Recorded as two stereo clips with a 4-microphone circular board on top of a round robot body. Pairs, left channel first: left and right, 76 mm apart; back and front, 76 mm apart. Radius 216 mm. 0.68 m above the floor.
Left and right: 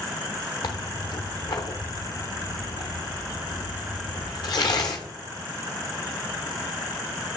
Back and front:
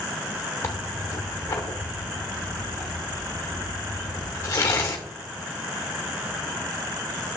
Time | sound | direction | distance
0.6 | tearing paper | 125° left | 0.6 m